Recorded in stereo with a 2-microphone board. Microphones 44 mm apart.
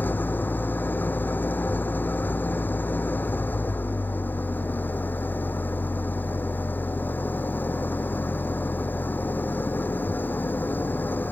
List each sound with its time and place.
0.0 s an engine running: 45° left (ahead or behind)